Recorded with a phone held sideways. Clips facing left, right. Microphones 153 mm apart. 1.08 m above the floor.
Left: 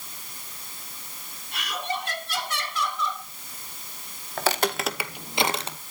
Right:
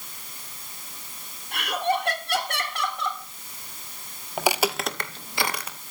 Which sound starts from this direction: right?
Laughter, at 1.5 s.